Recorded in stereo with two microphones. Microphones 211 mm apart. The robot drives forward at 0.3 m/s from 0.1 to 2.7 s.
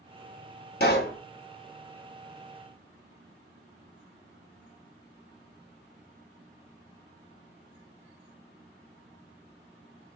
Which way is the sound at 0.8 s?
50° left (ahead or behind).